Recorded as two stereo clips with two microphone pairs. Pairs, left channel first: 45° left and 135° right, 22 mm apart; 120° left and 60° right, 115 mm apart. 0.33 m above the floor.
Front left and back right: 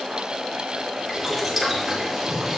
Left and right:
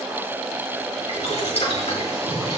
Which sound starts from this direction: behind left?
Boiling, at 1.1 s.